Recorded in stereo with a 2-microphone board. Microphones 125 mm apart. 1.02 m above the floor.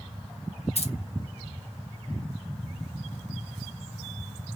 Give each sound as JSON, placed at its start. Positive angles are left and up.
{"t": 0.8, "sound": "keys jangling", "side_deg": 60, "distance_m": 0.7}